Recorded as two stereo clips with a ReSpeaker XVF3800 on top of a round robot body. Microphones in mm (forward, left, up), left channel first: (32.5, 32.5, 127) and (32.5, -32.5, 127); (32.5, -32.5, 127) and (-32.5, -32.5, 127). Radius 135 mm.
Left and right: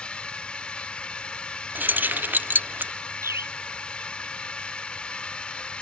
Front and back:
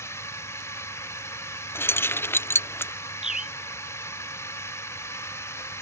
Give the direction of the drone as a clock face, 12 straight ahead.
11 o'clock.